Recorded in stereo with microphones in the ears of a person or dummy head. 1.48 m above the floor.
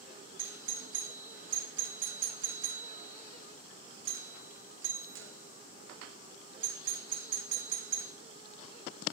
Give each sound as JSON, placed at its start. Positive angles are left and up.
{"t": 0.4, "sound": "a doorbell", "side_deg": -50, "distance_m": 0.6}